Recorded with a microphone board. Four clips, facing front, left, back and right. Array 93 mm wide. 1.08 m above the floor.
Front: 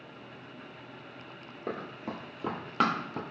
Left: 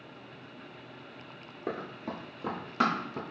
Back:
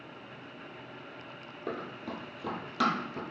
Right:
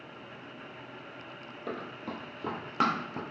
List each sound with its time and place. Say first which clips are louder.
1.7 s running footsteps: left 2 dB, front 1 dB; 65° left, 1.1 m; by 3.2 s 20° right, 1.4 m